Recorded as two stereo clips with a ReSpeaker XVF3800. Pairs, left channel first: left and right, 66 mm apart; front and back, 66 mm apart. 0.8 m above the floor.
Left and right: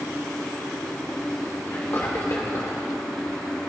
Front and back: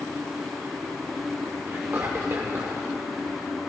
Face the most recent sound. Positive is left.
turn(degrees=130)